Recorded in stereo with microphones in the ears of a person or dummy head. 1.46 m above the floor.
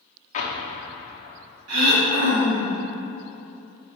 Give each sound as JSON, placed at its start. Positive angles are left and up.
{"t": 0.3, "sound": "an explosion", "side_deg": 35, "distance_m": 0.9}
{"t": 1.7, "sound": "throat clearing", "side_deg": -85, "distance_m": 1.7}